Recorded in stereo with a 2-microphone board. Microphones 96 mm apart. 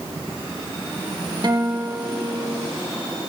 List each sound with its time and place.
1.4 s a guitar: 45° right (ahead or behind), 3.5 m